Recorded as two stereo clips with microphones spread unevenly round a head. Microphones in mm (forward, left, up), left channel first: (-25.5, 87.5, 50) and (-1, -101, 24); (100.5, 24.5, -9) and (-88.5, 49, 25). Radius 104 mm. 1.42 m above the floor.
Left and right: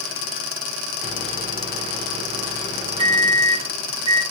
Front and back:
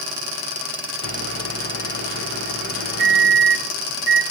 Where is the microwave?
150° right, 1.1 m.